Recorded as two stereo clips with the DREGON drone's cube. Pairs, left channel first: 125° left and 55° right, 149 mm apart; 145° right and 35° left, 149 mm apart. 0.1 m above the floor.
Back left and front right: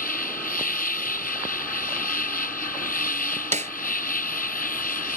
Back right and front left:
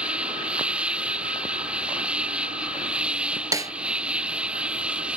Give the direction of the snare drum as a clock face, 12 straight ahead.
1 o'clock.